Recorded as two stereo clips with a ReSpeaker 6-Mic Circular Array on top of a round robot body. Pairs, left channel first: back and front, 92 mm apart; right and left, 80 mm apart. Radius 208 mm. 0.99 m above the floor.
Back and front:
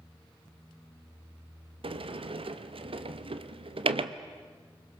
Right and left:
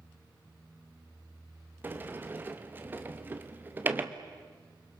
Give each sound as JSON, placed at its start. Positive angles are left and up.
{"t": 1.8, "sound": "a sliding door", "azimuth_deg": 25, "distance_m": 1.1}